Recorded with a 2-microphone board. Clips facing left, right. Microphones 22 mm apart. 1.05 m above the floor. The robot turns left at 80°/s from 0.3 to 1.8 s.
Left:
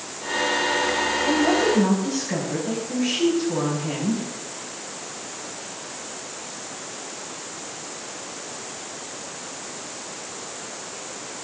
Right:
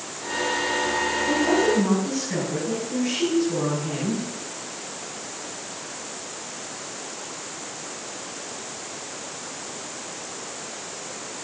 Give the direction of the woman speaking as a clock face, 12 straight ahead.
8 o'clock.